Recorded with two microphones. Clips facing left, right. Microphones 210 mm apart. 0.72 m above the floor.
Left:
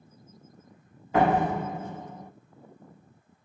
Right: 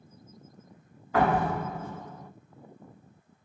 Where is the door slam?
20° left (ahead or behind), 0.8 m.